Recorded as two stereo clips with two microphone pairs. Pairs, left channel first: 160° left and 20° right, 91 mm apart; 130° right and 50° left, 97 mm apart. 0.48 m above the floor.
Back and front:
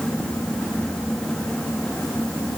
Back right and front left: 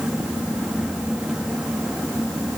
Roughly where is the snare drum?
I don't hear a snare drum.